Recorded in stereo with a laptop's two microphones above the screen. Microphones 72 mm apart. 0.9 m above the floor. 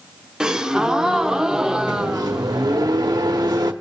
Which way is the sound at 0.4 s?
10° right (ahead or behind).